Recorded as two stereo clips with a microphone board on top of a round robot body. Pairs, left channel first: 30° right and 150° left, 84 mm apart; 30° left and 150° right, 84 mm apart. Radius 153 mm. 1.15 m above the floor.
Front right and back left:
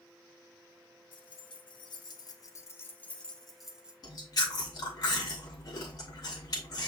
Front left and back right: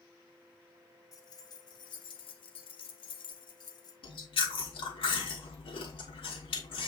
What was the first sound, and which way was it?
Keys jangling, 15° right.